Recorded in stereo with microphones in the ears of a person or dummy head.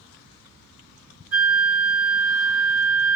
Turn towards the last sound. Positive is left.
turn(degrees=-5)  # may be behind; listen again after turning